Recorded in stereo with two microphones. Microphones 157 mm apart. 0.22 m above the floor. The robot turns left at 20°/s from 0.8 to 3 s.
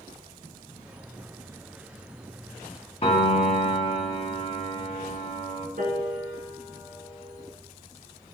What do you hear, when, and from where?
3.0 s a piano: 40° left (ahead or behind), 0.7 m
5.8 s a piano: 65° right (ahead or behind), 1.0 m